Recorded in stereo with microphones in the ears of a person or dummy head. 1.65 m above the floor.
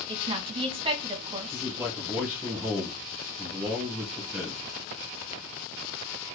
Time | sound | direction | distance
0.1 | a woman speaking | 30° right (ahead or behind) | 0.8 m
1.5 | a man speaking | 15° right (ahead or behind) | 1.2 m